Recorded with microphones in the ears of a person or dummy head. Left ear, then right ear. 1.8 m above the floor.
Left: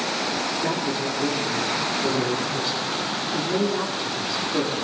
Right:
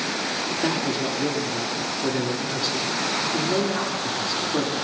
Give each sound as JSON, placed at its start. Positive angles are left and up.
{"t": 0.6, "sound": "a man speaking", "side_deg": -35, "distance_m": 3.0}